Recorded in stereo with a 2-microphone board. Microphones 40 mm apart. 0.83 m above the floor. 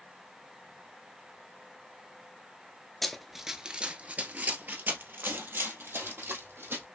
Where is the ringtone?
No ringtone in this recording.